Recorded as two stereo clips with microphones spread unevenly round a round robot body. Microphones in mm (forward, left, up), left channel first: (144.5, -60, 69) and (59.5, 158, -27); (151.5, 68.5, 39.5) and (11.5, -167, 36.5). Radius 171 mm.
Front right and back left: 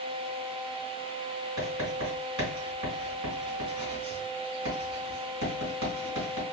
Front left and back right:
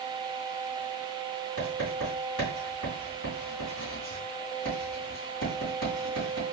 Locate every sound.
1.6 s writing: 125° left, 3 m